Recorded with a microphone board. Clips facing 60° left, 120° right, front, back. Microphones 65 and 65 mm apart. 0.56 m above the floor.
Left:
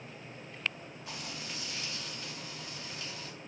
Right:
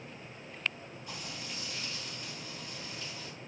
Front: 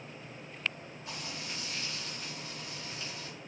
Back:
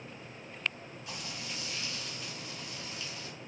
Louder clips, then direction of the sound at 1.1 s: Left 1 dB, front 1 dB; 55° left.